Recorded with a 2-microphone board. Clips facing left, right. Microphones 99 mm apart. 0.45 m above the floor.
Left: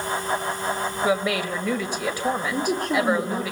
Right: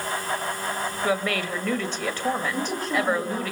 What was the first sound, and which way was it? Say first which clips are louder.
A woman speaking: left 2 dB; 10° left (ahead or behind).